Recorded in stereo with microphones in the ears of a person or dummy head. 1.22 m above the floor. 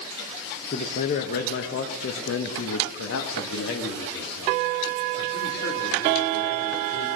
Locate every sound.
0.7 s a man speaking: 35° left (ahead or behind), 1.0 m; by 7.1 s 60° left (ahead or behind), 3.5 m